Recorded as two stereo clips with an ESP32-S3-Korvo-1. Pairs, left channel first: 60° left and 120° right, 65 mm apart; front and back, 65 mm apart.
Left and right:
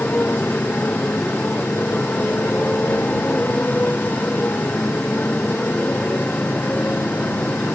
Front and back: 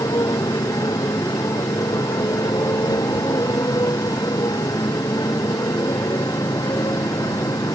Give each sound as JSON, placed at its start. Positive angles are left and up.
{"t": 0.0, "sound": "a motorcycle", "azimuth_deg": -5}